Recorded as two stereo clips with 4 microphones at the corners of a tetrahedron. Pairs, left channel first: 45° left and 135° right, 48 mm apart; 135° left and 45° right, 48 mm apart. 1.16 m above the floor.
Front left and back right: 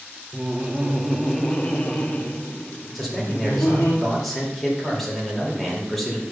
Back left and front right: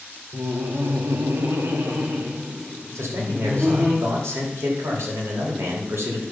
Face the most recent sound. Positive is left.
turn(degrees=-40)